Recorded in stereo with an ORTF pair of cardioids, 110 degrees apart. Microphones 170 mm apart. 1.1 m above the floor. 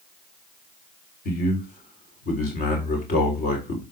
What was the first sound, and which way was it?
A man speaking, 55° left.